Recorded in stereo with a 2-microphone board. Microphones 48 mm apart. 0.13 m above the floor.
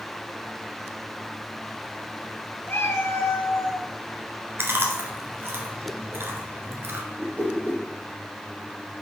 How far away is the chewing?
About 1.3 m.